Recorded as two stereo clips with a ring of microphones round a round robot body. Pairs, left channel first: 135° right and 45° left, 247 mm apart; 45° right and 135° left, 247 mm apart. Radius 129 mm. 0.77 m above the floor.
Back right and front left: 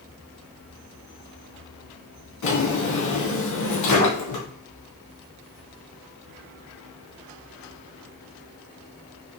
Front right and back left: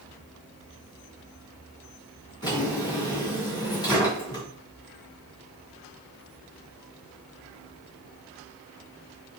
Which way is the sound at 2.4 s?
120° right.